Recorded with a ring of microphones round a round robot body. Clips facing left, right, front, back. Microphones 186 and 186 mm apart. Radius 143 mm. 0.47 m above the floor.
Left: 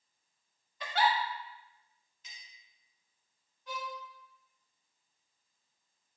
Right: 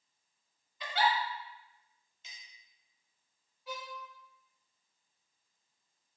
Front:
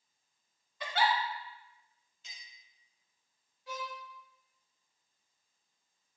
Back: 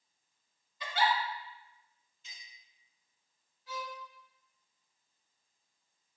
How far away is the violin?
About 1.6 m.